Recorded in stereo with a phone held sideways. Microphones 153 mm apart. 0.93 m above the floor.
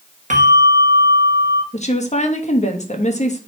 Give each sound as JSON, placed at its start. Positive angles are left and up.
{"t": 0.3, "sound": "a bell", "side_deg": -55, "distance_m": 1.4}
{"t": 1.7, "sound": "a woman speaking", "side_deg": 50, "distance_m": 1.2}